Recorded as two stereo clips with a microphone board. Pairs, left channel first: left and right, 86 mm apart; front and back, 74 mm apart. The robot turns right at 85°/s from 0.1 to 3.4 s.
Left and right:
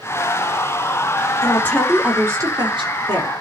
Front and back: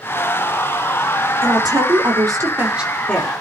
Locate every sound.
1.4 s a woman speaking: 140° left, 6 m; by 3.3 s 60° right, 6 m